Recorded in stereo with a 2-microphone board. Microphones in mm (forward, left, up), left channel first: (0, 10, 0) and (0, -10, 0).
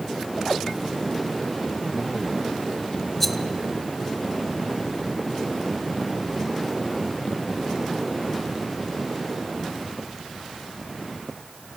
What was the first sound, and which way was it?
A rattle, 10° left (ahead or behind).